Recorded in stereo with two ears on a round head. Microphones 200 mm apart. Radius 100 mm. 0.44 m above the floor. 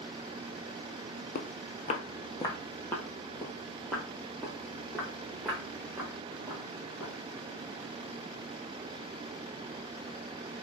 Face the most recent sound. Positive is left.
turn(degrees=-5)  # may be behind; listen again after turning